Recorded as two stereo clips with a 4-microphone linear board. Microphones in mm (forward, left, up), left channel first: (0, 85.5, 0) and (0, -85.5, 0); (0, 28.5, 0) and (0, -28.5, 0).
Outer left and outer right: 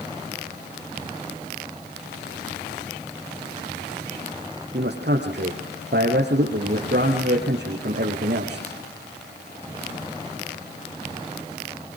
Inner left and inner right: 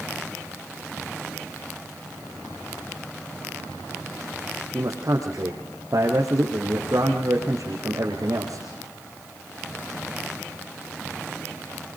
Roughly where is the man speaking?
Right.